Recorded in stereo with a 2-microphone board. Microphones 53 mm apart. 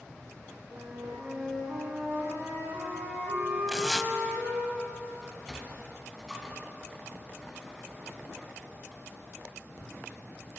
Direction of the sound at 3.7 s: Centre (ahead or behind).